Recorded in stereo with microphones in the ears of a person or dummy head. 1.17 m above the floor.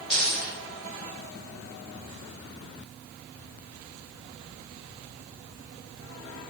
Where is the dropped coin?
10° left (ahead or behind), 2.5 m.